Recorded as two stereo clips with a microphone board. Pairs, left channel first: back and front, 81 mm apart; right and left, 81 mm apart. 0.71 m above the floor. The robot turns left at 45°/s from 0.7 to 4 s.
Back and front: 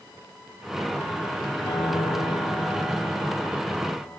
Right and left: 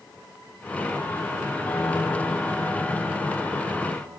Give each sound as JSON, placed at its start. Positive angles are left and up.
{"t": 1.6, "sound": "a piano", "azimuth_deg": -155, "distance_m": 5.0}